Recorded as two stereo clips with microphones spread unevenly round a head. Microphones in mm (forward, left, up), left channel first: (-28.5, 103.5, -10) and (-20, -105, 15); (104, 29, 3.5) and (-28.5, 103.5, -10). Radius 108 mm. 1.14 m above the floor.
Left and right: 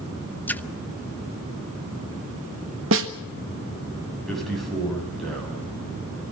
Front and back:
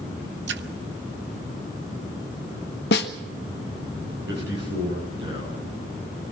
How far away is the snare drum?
About 1.3 m.